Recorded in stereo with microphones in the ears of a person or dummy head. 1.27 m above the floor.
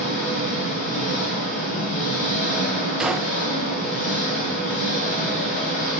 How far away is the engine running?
About 3.5 m.